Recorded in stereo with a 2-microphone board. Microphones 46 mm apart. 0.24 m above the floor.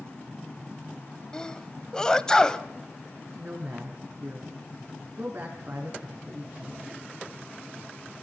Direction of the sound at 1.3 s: 15° left (ahead or behind).